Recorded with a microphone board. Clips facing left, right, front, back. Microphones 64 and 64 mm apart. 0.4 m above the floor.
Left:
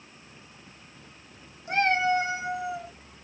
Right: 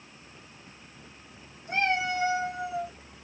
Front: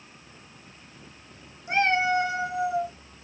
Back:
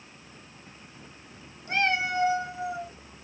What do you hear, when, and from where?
1.7 s a cat meowing: 75° left, 1.0 m; by 2.9 s straight ahead, 1.6 m